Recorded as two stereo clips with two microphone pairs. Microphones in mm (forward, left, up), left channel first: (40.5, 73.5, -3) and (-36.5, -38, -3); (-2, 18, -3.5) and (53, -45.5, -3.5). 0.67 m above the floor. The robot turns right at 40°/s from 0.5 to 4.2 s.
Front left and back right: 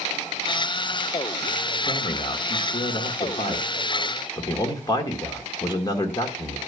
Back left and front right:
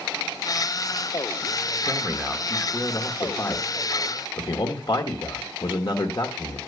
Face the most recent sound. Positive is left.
turn(degrees=110)